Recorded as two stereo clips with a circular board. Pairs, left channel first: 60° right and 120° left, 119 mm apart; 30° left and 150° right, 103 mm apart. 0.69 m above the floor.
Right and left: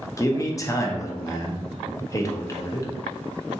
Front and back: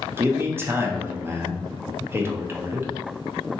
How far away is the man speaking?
About 0.5 m.